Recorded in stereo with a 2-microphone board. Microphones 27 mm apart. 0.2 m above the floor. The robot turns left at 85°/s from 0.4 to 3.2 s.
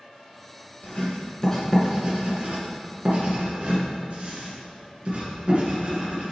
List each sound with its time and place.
0.8 s writing: 60° left (ahead or behind), 2.5 m; by 6.3 s 45° right (ahead or behind), 2.5 m